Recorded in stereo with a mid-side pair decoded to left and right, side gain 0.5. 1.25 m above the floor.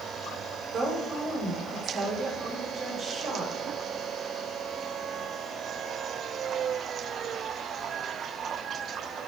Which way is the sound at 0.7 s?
60° right.